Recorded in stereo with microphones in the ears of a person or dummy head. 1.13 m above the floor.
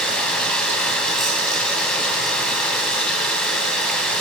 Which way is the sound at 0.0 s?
5° left (ahead or behind).